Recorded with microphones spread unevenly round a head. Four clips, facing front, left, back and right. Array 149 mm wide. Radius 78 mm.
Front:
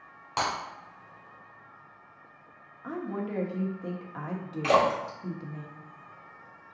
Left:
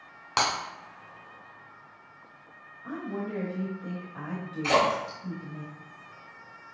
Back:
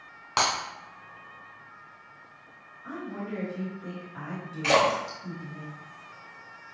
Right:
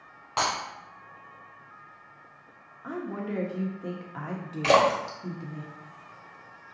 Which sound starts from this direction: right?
A splash, at 4.6 s.